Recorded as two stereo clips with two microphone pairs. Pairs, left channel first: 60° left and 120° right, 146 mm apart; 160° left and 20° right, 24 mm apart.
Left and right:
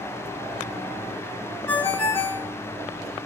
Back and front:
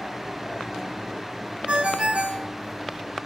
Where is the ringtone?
15° right, 2 m.